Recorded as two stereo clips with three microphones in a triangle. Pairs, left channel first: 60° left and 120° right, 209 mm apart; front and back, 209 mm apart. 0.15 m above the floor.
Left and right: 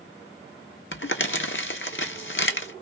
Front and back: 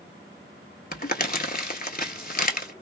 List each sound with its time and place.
0.9 s crumpling: 45° left, 0.7 m